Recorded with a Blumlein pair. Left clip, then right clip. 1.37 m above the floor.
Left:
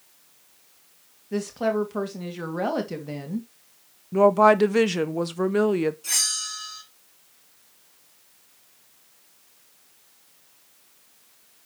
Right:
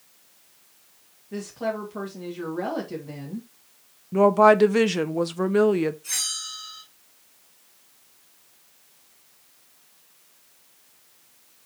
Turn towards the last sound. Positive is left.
turn(degrees=35)